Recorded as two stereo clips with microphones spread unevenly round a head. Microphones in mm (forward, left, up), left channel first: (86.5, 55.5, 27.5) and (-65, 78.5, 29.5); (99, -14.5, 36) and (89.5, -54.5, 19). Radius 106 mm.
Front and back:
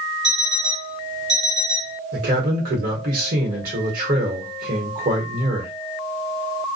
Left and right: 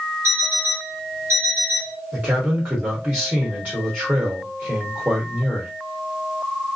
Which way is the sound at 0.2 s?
Straight behind.